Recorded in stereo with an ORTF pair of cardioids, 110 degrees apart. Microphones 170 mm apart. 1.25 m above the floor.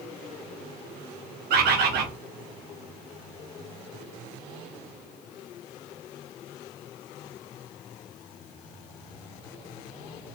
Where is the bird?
70° right, 0.7 m.